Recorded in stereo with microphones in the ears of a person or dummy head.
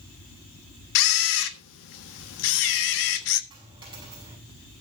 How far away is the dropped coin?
About 7 m.